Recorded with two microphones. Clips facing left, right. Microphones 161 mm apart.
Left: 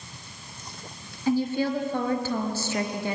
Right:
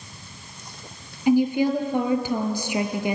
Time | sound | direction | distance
1.3 | a woman speaking | 15° right (ahead or behind) | 2.0 m